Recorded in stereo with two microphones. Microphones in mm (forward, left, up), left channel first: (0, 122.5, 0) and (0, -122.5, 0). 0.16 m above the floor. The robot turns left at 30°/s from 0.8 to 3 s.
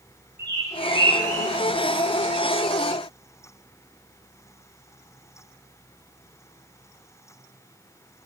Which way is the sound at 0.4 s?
45° right (ahead or behind).